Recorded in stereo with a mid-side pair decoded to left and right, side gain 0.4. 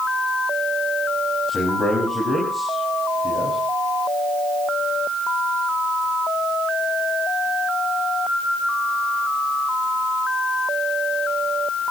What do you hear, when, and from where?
1.5 s a man speaking: 25° left, 6 m